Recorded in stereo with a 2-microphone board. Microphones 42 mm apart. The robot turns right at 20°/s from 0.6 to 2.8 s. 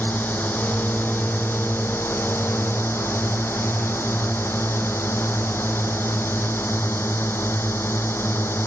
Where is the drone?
55° left; by 8.7 s 100° left.